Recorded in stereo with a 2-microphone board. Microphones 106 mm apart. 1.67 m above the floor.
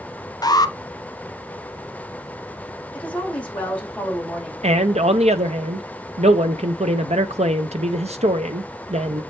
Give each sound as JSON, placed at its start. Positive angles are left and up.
{"t": 0.4, "sound": "an alarm", "side_deg": 35, "distance_m": 0.9}
{"t": 2.9, "sound": "a woman speaking", "side_deg": 10, "distance_m": 4.5}
{"t": 4.6, "sound": "a man speaking", "side_deg": -85, "distance_m": 1.1}